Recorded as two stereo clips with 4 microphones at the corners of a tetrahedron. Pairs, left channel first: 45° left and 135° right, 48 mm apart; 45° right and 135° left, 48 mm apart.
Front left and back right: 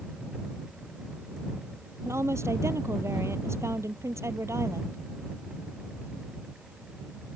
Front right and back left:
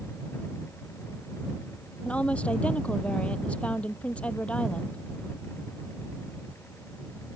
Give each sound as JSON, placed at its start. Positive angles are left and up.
{"t": 2.0, "sound": "a woman speaking", "azimuth_deg": -110}